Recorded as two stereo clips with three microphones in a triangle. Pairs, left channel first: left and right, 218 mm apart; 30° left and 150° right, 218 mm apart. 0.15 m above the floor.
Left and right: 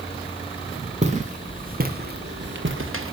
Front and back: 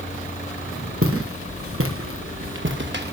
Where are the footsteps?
150° right, 4 m; by 3.1 s 105° right, 2.5 m.